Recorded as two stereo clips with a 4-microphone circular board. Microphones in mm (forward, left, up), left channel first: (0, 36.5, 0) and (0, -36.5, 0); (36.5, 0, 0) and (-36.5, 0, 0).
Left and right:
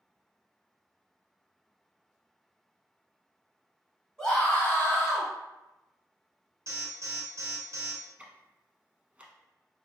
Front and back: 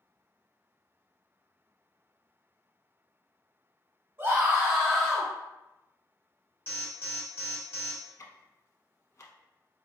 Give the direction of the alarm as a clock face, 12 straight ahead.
2 o'clock.